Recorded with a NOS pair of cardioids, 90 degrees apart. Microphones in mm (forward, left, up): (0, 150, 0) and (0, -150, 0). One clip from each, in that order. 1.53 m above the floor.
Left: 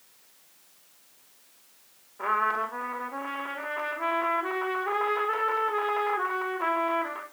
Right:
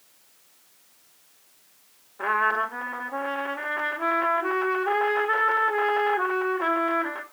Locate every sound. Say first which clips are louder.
2.2 s a trumpet: right 3 dB; 20° right, 4.5 m